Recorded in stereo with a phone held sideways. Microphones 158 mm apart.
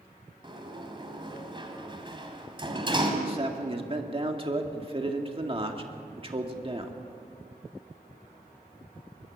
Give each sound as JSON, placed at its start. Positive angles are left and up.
{"t": 0.4, "sound": "a sliding door", "side_deg": -30, "distance_m": 3.0}
{"t": 3.2, "sound": "a man speaking", "side_deg": -35, "distance_m": 2.0}